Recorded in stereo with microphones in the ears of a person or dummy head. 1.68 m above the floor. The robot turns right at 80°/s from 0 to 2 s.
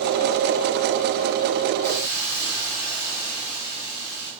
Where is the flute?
I don't hear a flute.